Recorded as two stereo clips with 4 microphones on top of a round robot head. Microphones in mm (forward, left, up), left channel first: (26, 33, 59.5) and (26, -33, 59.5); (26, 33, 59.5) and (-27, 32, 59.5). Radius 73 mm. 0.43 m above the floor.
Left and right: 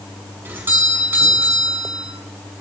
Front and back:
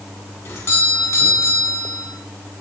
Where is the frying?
I don't hear frying.